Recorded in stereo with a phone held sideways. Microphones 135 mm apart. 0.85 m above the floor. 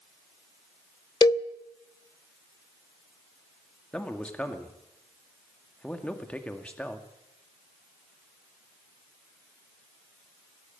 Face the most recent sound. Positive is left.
turn(degrees=10)  # may be behind; listen again after turning